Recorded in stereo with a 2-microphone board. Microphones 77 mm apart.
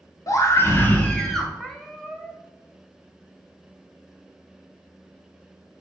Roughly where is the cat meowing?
Centre.